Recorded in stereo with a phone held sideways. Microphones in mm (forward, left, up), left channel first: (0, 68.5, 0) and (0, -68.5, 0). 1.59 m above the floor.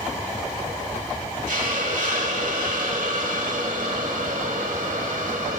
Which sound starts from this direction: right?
A hiss, at 1.5 s.